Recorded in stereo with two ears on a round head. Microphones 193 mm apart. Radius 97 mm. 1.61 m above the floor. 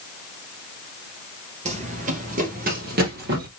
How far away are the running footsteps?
About 2 m.